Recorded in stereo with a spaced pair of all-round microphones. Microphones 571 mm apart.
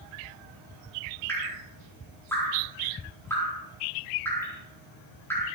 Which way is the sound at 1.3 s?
5° left (ahead or behind).